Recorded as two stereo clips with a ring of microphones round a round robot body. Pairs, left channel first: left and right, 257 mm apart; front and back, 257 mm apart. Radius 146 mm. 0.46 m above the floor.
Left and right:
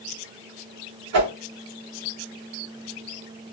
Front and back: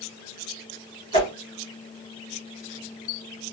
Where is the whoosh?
70° right, 2.0 m.